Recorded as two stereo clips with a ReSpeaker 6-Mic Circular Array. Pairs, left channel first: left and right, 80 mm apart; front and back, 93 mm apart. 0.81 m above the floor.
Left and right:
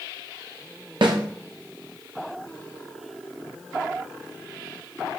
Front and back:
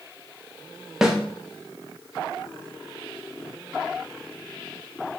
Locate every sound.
1.0 s a snare drum: 95° right, 0.5 m